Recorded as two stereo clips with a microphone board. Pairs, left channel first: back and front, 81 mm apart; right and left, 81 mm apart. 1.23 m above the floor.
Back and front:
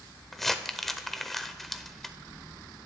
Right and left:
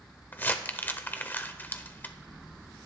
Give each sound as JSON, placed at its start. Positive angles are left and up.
{"t": 0.3, "sound": "crumpling", "azimuth_deg": -100, "distance_m": 1.0}